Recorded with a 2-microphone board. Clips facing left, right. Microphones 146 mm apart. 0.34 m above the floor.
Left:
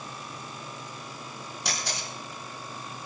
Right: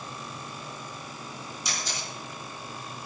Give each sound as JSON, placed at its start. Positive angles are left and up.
{"t": 1.6, "sound": "a camera shutter", "side_deg": 70, "distance_m": 4.5}